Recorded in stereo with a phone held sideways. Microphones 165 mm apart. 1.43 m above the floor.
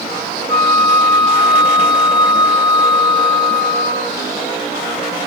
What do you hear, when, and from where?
0.5 s a flute: 25° left (ahead or behind), 1.2 m